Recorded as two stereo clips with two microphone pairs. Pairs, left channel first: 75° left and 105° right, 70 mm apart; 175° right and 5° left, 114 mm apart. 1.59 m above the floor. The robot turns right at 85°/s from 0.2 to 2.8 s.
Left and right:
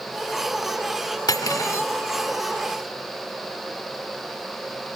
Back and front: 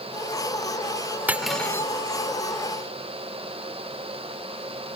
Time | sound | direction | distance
1.3 | cutlery clinking | 80° left | ?